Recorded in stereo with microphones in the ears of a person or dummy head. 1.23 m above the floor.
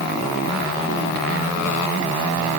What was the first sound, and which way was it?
Only background noise.